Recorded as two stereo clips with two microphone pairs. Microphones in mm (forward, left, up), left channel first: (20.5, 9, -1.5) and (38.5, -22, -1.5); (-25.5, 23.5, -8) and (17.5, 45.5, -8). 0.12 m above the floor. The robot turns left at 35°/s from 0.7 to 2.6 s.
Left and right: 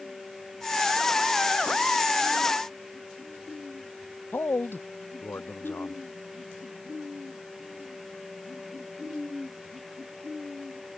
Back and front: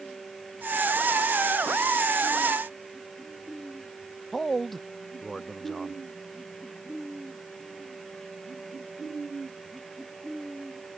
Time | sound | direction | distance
4.3 | a man speaking | 120° left | ?